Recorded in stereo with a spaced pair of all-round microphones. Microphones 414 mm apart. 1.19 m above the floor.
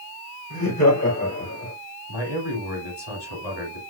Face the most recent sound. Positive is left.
turn(degrees=80)